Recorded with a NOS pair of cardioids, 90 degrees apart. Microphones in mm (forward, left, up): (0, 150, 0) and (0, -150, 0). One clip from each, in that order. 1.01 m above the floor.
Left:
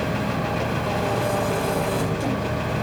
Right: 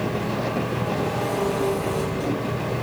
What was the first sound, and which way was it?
An engine running, 50° left.